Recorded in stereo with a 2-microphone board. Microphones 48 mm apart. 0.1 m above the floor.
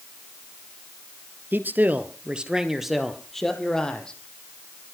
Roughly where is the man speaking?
Right.